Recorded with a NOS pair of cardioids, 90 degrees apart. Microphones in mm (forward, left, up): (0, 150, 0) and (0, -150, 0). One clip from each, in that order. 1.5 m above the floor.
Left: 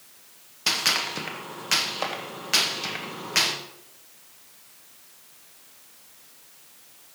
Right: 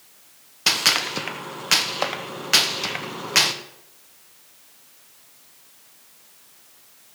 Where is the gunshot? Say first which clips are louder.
Right 4 dB; 30° right, 1.1 m.